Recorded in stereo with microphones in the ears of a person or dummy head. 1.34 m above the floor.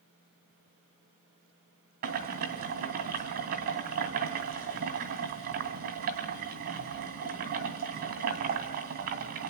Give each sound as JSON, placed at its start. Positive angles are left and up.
{"t": 2.0, "sound": "boiling", "side_deg": -50, "distance_m": 2.5}